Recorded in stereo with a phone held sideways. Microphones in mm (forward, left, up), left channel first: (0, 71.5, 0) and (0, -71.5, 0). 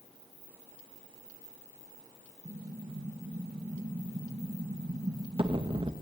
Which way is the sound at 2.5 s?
35° right (ahead or behind).